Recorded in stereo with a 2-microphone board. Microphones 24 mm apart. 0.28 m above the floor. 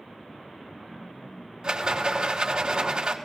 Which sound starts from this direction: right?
A rattle, at 1.6 s.